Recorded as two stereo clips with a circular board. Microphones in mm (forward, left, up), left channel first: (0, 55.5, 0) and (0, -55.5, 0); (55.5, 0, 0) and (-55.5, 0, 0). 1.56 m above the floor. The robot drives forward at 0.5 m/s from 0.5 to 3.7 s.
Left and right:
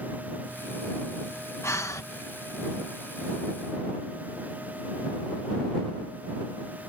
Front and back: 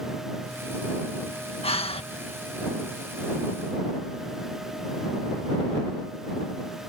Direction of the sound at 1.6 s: 25° left.